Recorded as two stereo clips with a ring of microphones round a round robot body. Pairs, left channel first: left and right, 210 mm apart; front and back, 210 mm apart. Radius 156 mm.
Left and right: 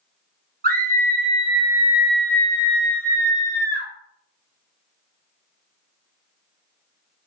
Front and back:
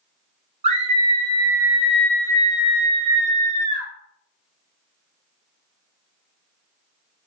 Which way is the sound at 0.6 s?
125° right.